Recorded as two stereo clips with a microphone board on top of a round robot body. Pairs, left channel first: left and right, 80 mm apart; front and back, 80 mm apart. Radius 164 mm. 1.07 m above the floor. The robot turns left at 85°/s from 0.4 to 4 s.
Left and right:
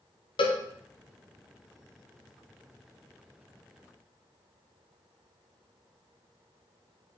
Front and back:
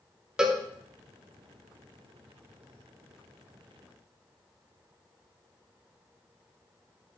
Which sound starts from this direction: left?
A cowbell, at 0.4 s.